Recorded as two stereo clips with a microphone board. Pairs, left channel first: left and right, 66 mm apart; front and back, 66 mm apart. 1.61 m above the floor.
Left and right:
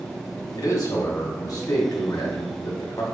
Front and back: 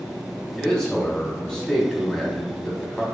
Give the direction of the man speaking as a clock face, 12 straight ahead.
9 o'clock.